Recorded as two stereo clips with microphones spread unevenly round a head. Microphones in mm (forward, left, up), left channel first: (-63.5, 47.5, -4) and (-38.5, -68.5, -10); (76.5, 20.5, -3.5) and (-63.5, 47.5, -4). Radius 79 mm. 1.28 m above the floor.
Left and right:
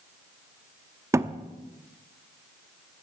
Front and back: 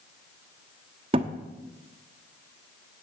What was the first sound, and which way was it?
A thud, 145° right.